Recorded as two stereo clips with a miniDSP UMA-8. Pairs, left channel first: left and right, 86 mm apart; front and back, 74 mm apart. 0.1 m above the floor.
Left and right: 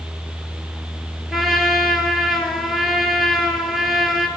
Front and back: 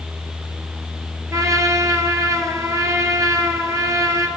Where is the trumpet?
175° right, 0.9 m.